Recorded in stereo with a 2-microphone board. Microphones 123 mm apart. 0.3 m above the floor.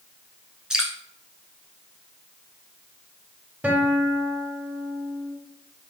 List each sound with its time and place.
0.7 s dripping: 5° right (ahead or behind), 0.8 m
3.6 s a guitar: 10° right (ahead or behind), 0.7 m